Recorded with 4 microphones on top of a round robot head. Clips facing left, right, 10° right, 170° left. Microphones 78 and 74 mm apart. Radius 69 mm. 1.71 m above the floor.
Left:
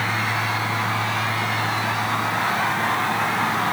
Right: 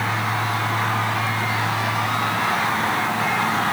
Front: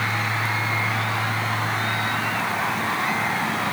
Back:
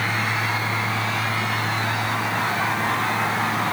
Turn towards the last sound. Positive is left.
No sound to turn to.